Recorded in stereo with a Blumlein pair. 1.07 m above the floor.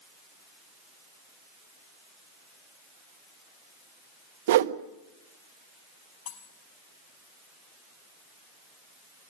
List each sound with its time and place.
4.5 s a whoosh: 55° right, 1.0 m
6.3 s cutlery clinking: 25° left, 5 m